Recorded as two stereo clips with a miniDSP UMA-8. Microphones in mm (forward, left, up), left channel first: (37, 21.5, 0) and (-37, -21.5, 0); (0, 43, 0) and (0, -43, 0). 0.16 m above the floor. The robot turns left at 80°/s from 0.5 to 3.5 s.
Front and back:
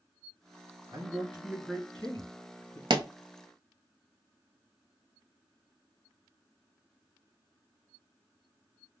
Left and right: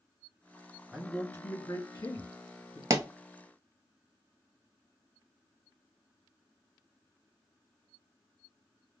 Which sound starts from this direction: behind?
A man speaking, at 0.9 s.